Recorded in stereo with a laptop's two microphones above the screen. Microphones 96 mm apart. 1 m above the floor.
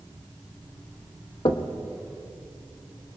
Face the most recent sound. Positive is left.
turn(degrees=65)  # may be behind; listen again after turning